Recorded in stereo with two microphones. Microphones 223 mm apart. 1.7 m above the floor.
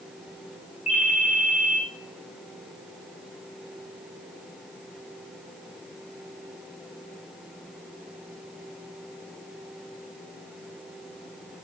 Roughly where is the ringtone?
Left.